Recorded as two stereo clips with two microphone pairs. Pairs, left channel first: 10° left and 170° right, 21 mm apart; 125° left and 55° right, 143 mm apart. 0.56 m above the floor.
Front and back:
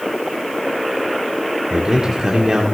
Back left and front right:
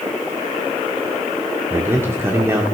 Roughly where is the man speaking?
Behind right.